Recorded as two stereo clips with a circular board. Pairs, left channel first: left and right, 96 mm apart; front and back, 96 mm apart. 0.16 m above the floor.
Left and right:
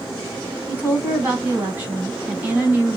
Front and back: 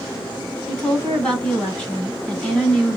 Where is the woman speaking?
60° right, 1.2 m.